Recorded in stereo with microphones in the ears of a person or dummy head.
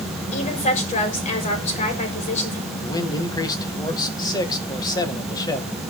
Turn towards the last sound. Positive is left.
turn(degrees=20)  # may be behind; listen again after turning